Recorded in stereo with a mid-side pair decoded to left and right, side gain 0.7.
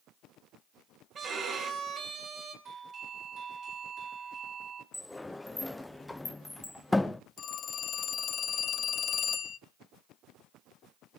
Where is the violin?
35° right, 4.5 m.